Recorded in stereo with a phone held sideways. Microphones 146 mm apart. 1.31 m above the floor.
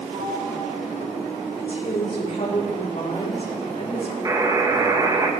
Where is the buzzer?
25° right (ahead or behind), 1.6 m.